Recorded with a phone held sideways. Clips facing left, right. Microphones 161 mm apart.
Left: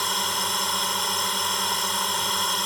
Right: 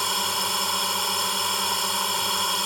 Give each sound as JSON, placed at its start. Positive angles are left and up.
{"t": 0.0, "sound": "a drone", "side_deg": -5}